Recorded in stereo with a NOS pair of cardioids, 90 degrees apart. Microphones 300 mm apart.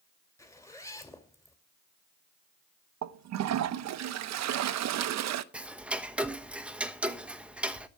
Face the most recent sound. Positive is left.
turn(degrees=-5)